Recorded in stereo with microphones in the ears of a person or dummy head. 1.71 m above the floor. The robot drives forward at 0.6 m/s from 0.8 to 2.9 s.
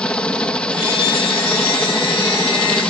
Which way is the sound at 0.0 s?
5° left (ahead or behind).